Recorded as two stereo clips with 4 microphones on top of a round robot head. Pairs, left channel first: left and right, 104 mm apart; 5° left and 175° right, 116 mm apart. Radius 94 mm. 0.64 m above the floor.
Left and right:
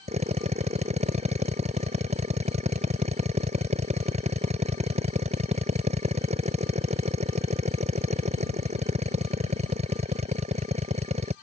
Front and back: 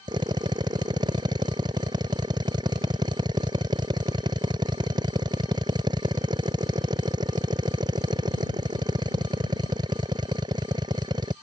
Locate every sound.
0.1 s a drill: 115° right